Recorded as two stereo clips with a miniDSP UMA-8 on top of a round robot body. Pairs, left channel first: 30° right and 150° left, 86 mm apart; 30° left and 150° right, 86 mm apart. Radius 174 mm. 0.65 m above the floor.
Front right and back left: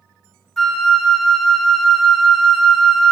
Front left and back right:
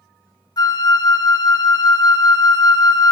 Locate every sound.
0.6 s a flute: 55° left, 0.5 m